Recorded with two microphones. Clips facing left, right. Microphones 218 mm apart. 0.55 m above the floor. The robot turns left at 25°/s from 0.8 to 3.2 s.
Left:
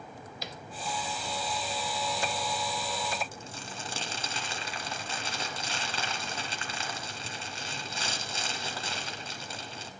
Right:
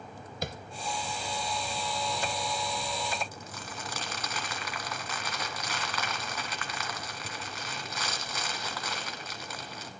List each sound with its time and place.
0.4 s tapping: 50° right (ahead or behind), 0.5 m
3.3 s crumpling: 30° left (ahead or behind), 1.6 m